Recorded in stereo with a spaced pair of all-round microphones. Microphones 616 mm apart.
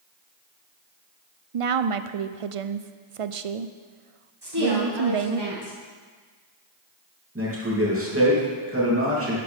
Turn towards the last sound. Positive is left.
turn(degrees=-20)  # may be behind; listen again after turning